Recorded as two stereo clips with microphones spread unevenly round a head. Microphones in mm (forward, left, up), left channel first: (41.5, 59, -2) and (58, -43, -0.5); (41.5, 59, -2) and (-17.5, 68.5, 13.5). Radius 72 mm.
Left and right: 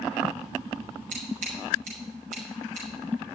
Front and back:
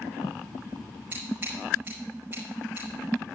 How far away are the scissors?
About 5.5 m.